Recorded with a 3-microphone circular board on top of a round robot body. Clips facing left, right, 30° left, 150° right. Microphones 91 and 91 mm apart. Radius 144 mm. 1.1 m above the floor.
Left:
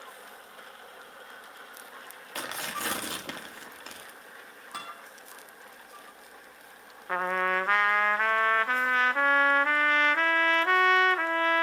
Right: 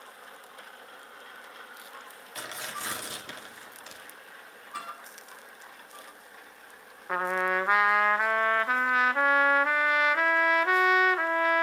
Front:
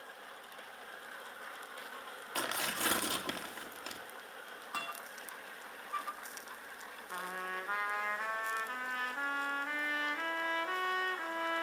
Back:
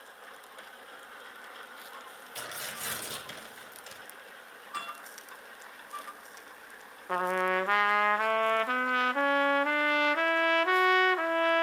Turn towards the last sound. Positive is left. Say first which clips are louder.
# even, back 13 dB
turn(degrees=-175)